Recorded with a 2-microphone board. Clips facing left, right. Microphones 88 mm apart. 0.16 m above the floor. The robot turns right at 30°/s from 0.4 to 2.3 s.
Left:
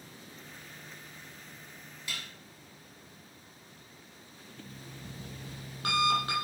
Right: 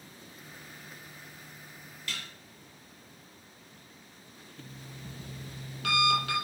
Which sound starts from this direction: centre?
Dishes clattering, at 2.1 s.